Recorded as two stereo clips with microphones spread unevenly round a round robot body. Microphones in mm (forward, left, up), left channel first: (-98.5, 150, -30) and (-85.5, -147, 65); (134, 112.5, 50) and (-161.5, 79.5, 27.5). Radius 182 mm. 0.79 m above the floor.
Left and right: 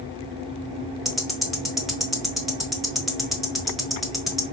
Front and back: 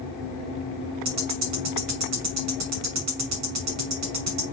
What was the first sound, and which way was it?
Ticking, 175° left.